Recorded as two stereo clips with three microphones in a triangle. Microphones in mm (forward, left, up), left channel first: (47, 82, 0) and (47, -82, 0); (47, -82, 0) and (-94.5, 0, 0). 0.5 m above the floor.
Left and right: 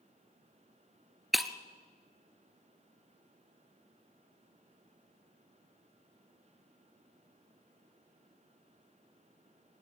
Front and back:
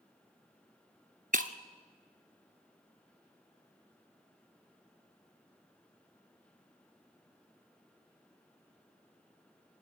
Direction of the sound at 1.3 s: Straight behind.